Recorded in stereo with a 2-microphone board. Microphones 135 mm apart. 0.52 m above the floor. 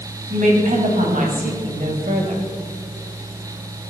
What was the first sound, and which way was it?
A woman speaking, 75° right (ahead or behind).